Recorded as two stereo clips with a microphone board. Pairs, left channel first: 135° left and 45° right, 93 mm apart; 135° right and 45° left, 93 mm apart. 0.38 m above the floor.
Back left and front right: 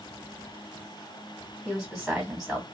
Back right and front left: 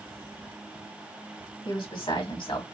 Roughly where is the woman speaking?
Behind right.